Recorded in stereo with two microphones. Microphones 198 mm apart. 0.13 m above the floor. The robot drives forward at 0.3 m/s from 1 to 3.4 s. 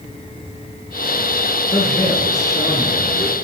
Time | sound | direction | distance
1.7 | a man speaking | 15° left (ahead or behind) | 3.5 m